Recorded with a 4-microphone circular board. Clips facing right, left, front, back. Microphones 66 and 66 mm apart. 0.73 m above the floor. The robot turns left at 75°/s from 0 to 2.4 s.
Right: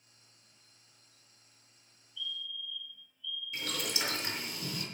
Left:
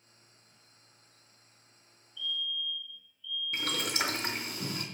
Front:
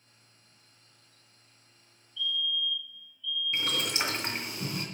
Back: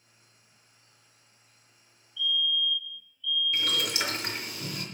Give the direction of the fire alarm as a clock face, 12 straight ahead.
8 o'clock.